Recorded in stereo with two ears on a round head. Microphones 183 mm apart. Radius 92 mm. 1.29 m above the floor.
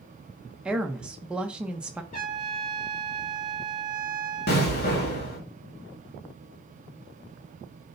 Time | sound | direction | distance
0.7 | a woman speaking | 5° right (ahead or behind) | 1.0 m
2.1 | a trumpet | 35° left (ahead or behind) | 5.5 m
4.5 | an explosion | 50° left (ahead or behind) | 2.5 m